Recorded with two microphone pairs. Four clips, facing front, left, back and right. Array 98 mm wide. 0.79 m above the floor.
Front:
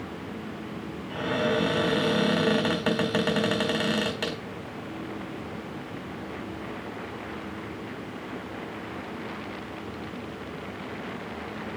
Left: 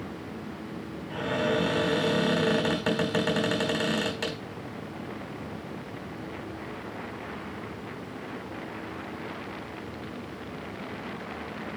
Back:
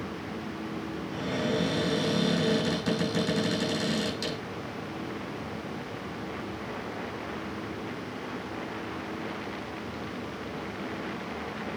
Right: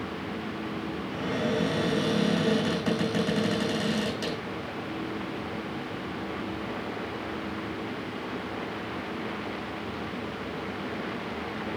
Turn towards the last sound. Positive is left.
turn(degrees=25)